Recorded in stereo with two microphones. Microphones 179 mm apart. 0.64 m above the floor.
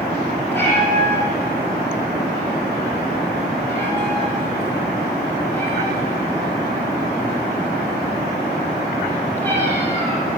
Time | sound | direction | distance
0.5 | a cat meowing | 10° left (ahead or behind) | 9.5 m